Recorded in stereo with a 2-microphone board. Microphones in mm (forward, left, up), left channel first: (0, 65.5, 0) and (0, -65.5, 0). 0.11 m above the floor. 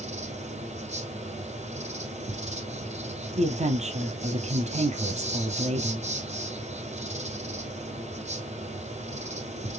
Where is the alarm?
No alarm in this recording.